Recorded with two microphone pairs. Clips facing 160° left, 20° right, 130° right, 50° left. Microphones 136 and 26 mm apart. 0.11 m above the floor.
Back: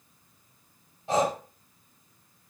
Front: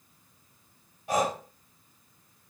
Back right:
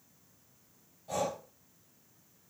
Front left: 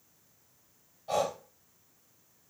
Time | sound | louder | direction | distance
1.1 | breathing | back 2 dB, front left 4 dB | 100° left | 1.9 m